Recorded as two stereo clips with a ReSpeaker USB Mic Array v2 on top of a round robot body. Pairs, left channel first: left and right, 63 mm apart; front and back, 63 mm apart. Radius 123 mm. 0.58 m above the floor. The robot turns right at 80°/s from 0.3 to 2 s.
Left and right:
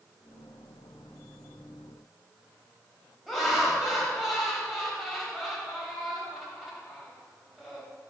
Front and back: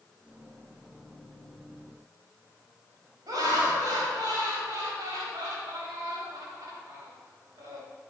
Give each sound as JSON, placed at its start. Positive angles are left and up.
{"t": 3.3, "sound": "laughter", "azimuth_deg": -175, "distance_m": 3.5}